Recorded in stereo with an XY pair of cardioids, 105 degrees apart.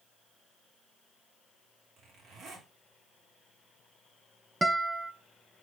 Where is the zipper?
65° right, 3.5 m.